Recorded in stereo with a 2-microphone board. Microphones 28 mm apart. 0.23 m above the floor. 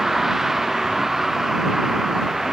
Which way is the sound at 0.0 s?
10° right (ahead or behind).